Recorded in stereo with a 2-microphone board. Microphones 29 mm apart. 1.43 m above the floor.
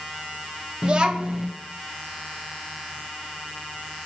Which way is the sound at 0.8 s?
30° right (ahead or behind).